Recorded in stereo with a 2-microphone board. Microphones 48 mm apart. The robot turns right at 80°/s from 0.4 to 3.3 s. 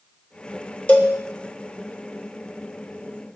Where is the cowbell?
30° left (ahead or behind), 0.9 m; by 1.1 s 15° left (ahead or behind), 0.9 m.